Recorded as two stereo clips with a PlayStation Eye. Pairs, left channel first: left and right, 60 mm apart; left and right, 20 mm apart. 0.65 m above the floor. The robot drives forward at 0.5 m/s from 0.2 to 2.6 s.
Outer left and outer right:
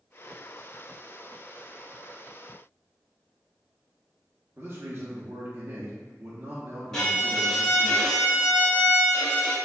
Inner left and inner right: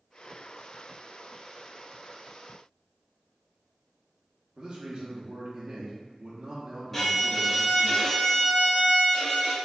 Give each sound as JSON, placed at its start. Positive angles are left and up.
{"t": 4.6, "sound": "a man speaking", "side_deg": -35, "distance_m": 0.6}
{"t": 6.9, "sound": "a violin", "side_deg": 10, "distance_m": 1.0}